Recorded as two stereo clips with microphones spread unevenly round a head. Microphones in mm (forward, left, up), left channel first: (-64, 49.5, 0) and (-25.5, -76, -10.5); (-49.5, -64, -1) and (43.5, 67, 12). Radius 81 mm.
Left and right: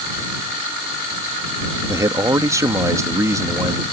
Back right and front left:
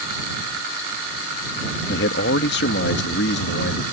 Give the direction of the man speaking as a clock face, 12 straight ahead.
5 o'clock.